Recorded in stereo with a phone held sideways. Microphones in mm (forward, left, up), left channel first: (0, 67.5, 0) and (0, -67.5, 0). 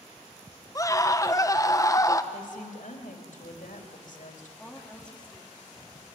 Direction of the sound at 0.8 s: 25° left (ahead or behind).